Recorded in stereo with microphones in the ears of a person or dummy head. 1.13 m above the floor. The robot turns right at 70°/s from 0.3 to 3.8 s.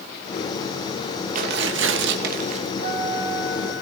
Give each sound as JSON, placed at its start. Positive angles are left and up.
{"t": 1.4, "sound": "tearing paper", "azimuth_deg": -130, "distance_m": 1.7}
{"t": 2.8, "sound": "a flute", "azimuth_deg": 35, "distance_m": 3.0}